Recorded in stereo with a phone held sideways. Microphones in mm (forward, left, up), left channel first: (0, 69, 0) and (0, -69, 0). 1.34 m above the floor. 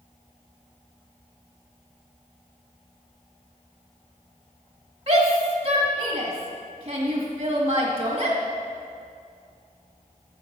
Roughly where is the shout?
Right.